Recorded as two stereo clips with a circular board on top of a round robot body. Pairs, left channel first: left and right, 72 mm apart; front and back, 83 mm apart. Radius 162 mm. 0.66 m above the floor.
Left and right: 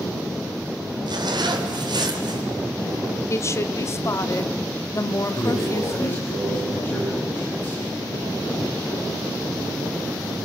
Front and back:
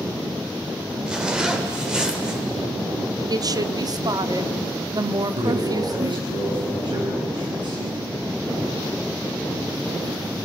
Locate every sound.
1.1 s a zipper: 100° right, 3.5 m
3.3 s a woman speaking: 140° left, 1.5 m
5.3 s a man speaking: 155° left, 10 m